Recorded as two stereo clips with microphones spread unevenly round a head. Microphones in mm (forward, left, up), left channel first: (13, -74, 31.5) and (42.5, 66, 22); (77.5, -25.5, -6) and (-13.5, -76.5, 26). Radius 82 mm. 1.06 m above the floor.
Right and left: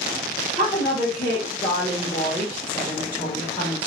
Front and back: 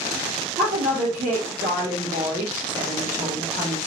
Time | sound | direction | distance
0.6 | a woman speaking | 165° right | 1.3 m